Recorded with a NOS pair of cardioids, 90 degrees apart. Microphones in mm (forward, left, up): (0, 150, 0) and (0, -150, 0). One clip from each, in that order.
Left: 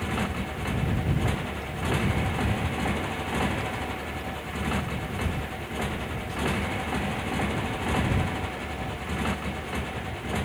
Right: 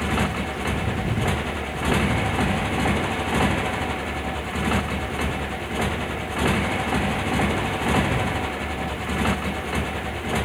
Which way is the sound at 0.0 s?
40° right.